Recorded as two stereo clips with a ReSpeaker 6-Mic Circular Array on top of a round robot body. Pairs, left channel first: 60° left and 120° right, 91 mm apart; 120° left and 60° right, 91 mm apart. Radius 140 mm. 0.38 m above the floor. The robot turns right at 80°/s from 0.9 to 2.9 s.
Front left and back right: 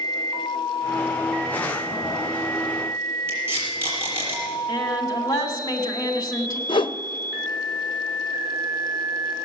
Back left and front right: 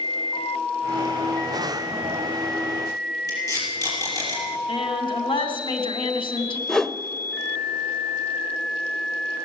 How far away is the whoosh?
About 0.6 m.